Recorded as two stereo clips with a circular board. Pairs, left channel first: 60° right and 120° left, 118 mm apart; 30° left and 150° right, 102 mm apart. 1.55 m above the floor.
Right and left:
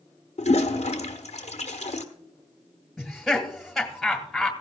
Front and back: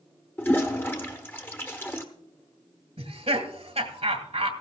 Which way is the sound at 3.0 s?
150° right.